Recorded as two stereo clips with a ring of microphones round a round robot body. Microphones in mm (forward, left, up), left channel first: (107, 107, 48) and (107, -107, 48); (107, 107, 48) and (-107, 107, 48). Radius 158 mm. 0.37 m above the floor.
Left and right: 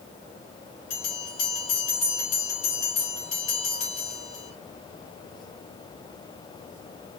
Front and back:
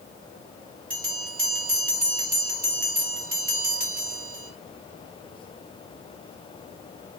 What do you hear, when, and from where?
0.9 s a bell: 130° left, 2.5 m